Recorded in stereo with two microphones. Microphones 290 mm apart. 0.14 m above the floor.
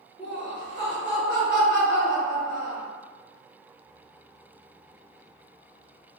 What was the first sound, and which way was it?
Laughter, 15° left (ahead or behind).